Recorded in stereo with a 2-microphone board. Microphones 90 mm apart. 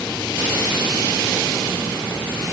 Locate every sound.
Only background noise.